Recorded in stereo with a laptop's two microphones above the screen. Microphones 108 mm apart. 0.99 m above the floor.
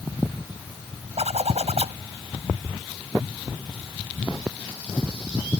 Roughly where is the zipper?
Right.